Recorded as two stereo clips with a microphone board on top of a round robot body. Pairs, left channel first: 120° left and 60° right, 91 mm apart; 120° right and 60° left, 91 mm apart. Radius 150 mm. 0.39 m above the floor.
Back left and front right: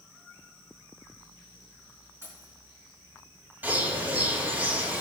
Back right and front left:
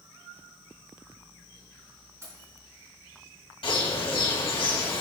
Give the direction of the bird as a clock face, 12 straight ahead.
4 o'clock.